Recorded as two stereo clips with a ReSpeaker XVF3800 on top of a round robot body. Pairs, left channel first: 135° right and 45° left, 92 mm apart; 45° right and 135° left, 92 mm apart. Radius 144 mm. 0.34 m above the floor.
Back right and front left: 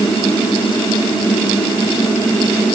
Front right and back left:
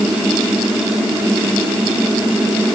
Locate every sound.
Only background noise.